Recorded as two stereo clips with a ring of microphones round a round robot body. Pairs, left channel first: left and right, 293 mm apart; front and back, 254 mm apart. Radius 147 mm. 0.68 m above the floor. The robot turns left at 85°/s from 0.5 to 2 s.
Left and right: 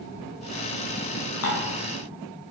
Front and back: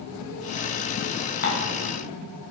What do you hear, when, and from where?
1.4 s dishes clattering: 50° left, 4 m; by 1.7 s 25° left, 4 m